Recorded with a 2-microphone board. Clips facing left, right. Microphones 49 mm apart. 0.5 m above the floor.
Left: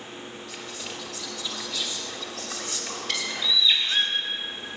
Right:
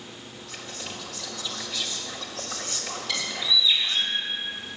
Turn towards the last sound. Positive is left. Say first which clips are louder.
# even
turn(degrees=45)  # may be behind; listen again after turning